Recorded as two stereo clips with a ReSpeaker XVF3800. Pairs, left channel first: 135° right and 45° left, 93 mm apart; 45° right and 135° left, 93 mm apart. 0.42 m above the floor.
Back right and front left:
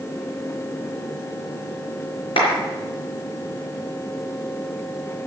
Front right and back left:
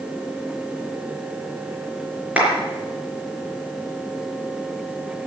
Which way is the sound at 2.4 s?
150° right.